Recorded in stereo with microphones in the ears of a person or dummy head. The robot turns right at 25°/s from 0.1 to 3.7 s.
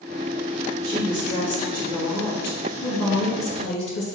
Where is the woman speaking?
20° left, 1.8 m; by 4.2 s 90° left, 1.8 m.